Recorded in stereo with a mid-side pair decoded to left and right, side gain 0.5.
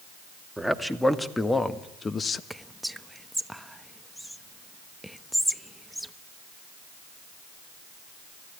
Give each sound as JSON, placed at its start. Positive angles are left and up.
{"t": 0.6, "sound": "a man speaking", "azimuth_deg": 0, "distance_m": 2.5}
{"t": 2.5, "sound": "whispering", "azimuth_deg": 0, "distance_m": 1.1}